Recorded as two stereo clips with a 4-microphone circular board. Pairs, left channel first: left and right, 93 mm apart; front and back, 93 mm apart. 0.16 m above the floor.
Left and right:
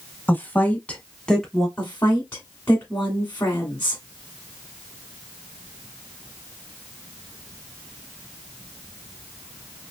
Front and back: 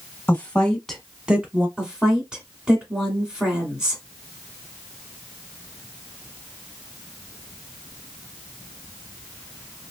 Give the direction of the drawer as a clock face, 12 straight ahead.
No drawer in this recording.